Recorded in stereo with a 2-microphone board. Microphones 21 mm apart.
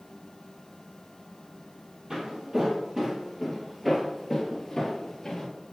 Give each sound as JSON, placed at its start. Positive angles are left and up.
{"t": 2.1, "sound": "footsteps", "side_deg": -30, "distance_m": 1.9}